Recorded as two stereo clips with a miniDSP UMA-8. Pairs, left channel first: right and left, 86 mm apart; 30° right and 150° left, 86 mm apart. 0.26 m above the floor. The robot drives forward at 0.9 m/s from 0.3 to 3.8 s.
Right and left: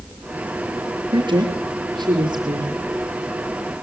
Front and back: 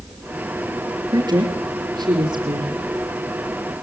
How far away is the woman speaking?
About 5 m.